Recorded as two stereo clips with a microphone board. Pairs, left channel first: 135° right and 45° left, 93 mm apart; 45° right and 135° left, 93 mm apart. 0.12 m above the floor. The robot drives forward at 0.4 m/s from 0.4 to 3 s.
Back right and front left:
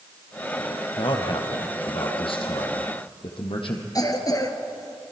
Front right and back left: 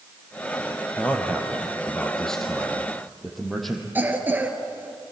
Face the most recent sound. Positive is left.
turn(degrees=-165)